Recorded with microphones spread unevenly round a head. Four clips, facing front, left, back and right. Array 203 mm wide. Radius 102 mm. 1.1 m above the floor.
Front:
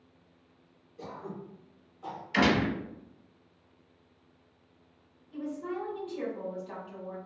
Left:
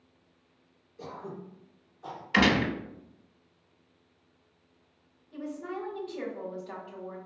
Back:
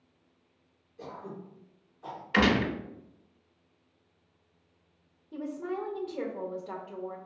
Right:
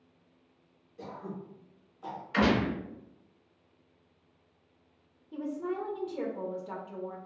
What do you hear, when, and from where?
1.0 s throat clearing: 70° right, 1.6 m
2.3 s a gunshot: 130° left, 0.8 m
5.3 s a woman speaking: 140° right, 0.8 m